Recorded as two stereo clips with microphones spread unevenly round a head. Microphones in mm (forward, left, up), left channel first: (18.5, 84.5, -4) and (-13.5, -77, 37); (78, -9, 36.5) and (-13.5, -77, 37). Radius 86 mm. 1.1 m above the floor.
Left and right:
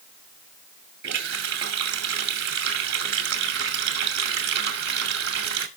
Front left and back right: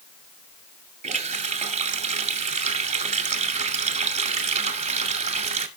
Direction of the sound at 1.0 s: 130° right.